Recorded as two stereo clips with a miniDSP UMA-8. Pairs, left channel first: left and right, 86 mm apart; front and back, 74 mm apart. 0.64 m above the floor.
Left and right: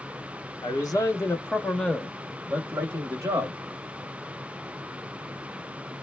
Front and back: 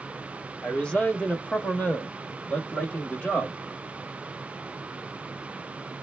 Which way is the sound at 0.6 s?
75° left.